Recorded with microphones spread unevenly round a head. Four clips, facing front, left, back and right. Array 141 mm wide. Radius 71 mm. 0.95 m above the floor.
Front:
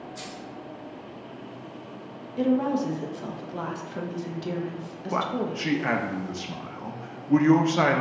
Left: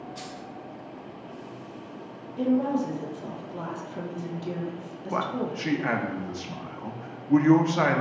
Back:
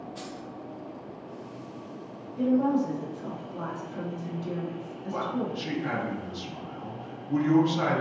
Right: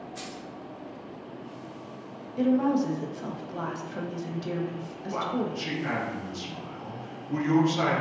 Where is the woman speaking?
20° right, 1.1 m.